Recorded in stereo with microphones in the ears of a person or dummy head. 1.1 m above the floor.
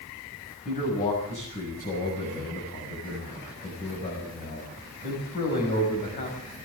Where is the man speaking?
35° left (ahead or behind), 6.5 m.